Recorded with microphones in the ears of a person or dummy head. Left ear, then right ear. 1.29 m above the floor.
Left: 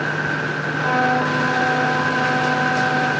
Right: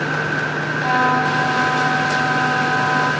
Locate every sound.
0.8 s a trumpet: 15° right (ahead or behind), 4.5 m